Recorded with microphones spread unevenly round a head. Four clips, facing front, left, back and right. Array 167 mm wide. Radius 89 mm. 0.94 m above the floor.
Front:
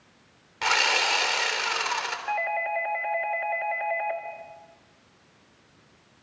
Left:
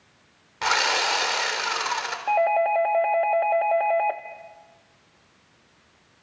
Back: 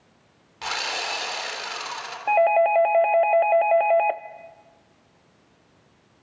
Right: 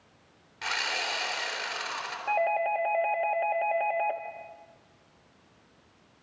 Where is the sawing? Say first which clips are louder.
Left 10 dB, front 5 dB; 60° left, 3.5 m.